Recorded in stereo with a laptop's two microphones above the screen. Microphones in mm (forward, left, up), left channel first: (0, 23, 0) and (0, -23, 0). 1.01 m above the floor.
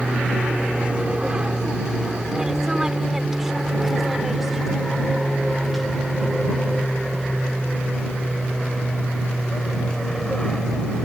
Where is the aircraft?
25° right (ahead or behind); by 11.1 s 15° left (ahead or behind).